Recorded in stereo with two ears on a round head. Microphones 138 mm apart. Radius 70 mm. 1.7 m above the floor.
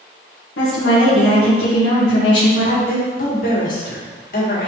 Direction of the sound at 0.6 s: 85° left.